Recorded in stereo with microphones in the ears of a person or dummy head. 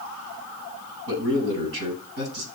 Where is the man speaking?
75° right (ahead or behind), 6 m.